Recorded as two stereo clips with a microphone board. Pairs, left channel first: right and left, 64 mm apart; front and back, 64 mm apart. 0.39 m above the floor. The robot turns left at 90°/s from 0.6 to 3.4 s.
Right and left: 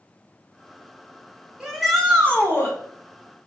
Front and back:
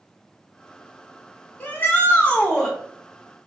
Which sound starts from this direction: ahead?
A shout, at 1.6 s.